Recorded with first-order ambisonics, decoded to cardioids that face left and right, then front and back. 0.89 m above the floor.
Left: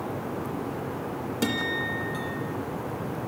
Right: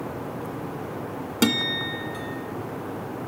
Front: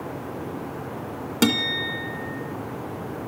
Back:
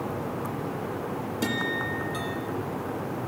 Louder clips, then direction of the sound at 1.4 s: Right 4 dB, front 6 dB; 30° right.